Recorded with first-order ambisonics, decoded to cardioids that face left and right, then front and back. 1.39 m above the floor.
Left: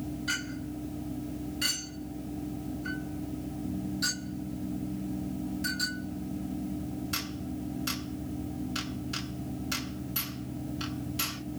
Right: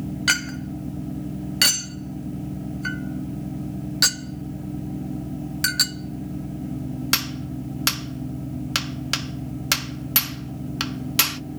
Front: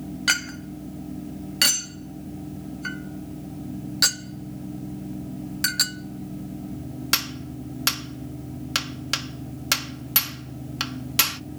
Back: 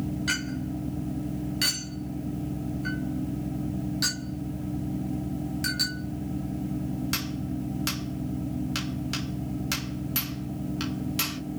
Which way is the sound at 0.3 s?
60° right.